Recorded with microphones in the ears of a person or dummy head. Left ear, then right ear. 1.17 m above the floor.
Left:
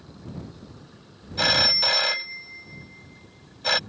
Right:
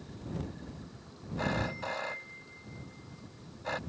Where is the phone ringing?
75° left (ahead or behind).